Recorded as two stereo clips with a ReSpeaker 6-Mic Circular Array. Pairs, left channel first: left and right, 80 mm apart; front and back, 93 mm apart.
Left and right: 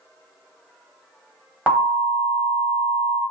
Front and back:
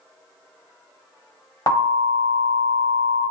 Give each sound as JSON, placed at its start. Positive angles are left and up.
{"t": 1.7, "sound": "an alarm", "azimuth_deg": -20, "distance_m": 1.7}